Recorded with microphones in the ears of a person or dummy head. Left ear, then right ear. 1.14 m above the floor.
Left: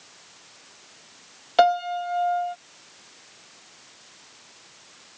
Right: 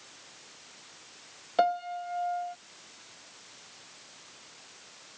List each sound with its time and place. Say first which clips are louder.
1.6 s a piano: left 8 dB; 30° left (ahead or behind)